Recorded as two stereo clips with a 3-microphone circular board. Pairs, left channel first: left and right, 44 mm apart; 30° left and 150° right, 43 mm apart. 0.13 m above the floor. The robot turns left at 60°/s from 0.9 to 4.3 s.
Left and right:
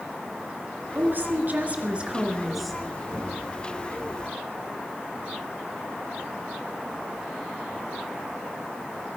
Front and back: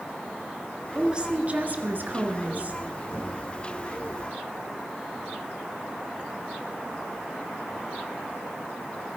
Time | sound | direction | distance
0.9 | a woman speaking | 80° right | 2 m
3.1 | knocking | 10° right | 7 m